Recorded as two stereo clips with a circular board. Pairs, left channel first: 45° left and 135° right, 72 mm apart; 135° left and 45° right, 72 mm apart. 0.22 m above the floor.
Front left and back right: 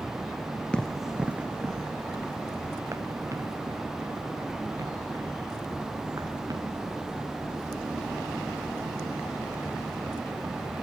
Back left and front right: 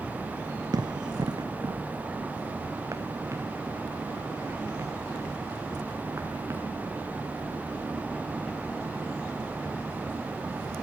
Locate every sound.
0.7 s running footsteps: 30° right, 0.7 m; by 6.7 s 100° right, 6 m